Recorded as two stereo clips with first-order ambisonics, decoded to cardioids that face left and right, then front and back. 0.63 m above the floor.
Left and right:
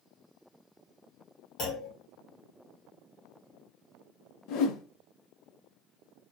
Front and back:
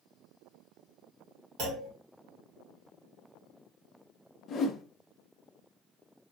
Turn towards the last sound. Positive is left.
turn(degrees=60)